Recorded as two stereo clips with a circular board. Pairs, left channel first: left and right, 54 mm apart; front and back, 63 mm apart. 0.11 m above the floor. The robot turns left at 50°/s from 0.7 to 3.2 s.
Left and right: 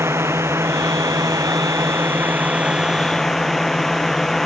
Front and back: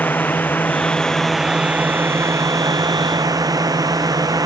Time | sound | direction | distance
0.0 | a drone | 60° right | ?